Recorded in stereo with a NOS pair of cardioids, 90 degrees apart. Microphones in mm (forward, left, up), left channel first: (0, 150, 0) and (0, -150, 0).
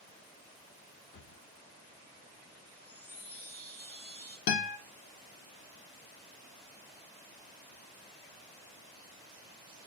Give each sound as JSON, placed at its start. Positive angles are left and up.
{"t": 1.1, "sound": "a drawer", "azimuth_deg": 35, "distance_m": 1.3}
{"t": 2.7, "sound": "a chime", "azimuth_deg": 5, "distance_m": 0.9}
{"t": 4.5, "sound": "a guitar", "azimuth_deg": 60, "distance_m": 0.8}